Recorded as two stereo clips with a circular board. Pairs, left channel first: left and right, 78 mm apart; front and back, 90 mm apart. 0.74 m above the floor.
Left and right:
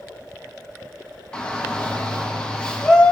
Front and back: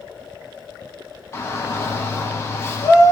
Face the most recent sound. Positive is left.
turn(degrees=25)